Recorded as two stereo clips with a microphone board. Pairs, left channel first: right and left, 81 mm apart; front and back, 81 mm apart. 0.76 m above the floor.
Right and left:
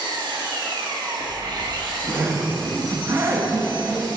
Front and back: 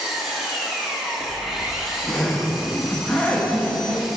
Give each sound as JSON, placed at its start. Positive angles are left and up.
{"t": 0.0, "sound": "an engine running", "azimuth_deg": 95, "distance_m": 1.0}
{"t": 1.2, "sound": "a zipper", "azimuth_deg": 65, "distance_m": 0.8}